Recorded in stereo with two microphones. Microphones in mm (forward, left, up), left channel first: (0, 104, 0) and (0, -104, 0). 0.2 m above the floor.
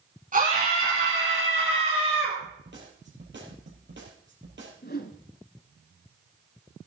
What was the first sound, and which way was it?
A scream, 40° right (ahead or behind).